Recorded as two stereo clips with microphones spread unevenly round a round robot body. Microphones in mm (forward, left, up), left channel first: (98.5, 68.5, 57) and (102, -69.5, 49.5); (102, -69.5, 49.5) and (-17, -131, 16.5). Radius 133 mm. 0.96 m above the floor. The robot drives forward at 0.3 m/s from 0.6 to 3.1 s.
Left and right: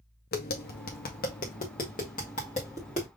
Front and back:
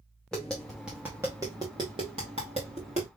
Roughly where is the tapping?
Behind left.